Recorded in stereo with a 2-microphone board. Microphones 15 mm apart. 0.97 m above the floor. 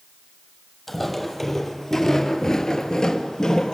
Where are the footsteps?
Centre (ahead or behind), 2 m; by 3.7 s 50° left (ahead or behind), 1.7 m.